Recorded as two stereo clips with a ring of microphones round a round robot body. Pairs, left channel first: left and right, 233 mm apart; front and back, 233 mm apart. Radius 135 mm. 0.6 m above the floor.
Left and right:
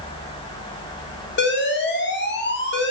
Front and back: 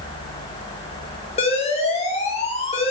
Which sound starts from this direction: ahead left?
An alarm, at 1.4 s.